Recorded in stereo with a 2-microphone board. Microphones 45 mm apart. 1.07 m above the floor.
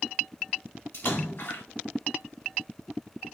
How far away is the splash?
About 1.9 m.